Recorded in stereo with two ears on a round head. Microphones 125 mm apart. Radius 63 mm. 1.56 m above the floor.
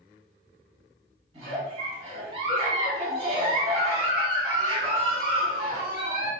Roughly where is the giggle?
Right.